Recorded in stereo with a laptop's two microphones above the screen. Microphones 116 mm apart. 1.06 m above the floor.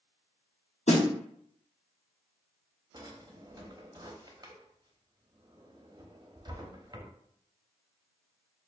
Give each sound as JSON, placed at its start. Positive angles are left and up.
{"t": 0.9, "sound": "a snare drum", "side_deg": 70, "distance_m": 1.1}
{"t": 2.9, "sound": "a drawer", "side_deg": -35, "distance_m": 0.7}